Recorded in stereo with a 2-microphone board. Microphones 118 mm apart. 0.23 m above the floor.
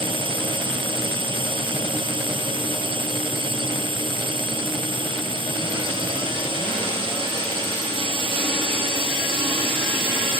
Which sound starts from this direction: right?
A drone, at 0.0 s.